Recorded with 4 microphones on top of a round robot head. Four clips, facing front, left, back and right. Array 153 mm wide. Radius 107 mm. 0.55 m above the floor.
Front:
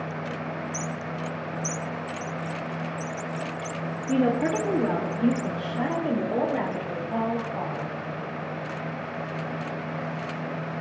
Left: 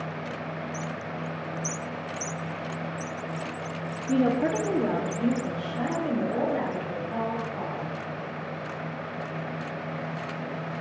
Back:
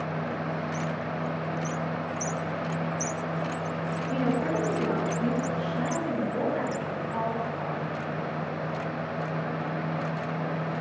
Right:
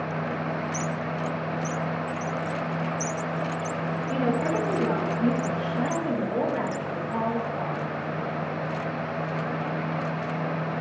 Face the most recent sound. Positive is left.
turn(degrees=5)